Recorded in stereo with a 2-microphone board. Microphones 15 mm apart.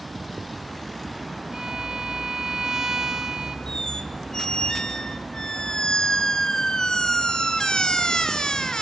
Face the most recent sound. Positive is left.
turn(degrees=60)  # may be behind; listen again after turning